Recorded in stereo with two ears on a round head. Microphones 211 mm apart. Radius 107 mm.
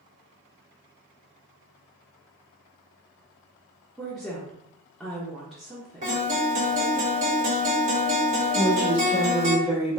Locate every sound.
4.0 s a woman speaking: centre (ahead or behind), 0.8 m
6.0 s a guitar: 35° right (ahead or behind), 1.6 m
8.6 s a woman speaking: 5° right (ahead or behind), 1.1 m